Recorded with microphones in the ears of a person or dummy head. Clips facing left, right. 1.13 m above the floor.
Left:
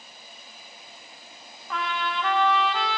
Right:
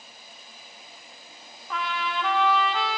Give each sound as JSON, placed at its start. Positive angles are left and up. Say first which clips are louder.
{"t": 1.7, "sound": "a trumpet", "louder": "even", "side_deg": 0, "distance_m": 0.7}